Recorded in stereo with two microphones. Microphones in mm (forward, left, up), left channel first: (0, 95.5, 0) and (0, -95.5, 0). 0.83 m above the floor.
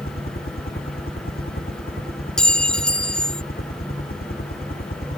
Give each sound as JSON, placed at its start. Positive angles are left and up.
{"t": 0.0, "sound": "a helicopter", "side_deg": 50}
{"t": 2.4, "sound": "a clink", "side_deg": 5}